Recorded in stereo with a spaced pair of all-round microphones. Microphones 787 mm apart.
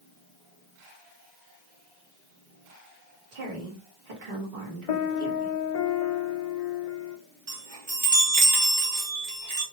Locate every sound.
3.3 s a woman speaking: 75° right (ahead or behind), 1.7 m
4.9 s a piano: 50° left (ahead or behind), 0.7 m
7.5 s a chime: 35° right (ahead or behind), 1.6 m